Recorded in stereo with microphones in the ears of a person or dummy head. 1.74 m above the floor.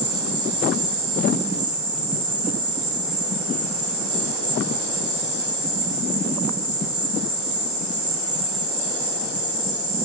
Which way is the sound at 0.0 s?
15° right (ahead or behind).